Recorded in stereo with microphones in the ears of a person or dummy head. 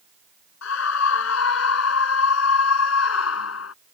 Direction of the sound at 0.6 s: 80° left.